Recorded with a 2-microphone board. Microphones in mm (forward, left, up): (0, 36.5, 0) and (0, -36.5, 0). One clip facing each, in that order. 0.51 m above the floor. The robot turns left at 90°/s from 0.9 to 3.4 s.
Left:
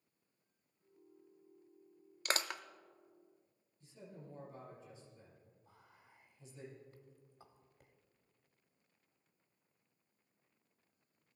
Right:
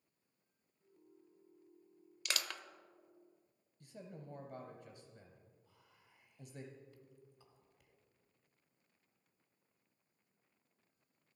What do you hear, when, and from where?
2.2 s crushing: 40° left (ahead or behind), 0.5 m; by 2.6 s 10° left (ahead or behind), 0.5 m
3.8 s a man speaking: 70° right (ahead or behind), 3 m
5.7 s whispering: 45° left (ahead or behind), 1.3 m